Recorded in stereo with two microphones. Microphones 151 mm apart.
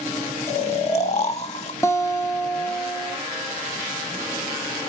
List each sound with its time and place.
0.5 s snoring: 45° left (ahead or behind), 1.0 m
1.8 s a guitar: 20° left (ahead or behind), 0.7 m